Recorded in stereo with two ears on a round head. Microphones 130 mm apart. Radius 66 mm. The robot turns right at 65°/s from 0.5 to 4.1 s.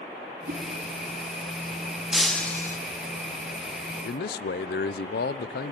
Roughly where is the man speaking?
Left.